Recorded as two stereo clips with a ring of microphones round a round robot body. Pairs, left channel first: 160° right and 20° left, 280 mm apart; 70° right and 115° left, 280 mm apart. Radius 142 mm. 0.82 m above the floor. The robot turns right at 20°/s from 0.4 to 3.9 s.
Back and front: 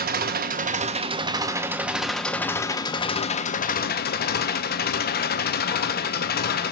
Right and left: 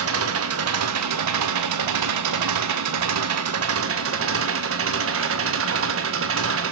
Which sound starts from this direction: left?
An engine running, at 0.0 s.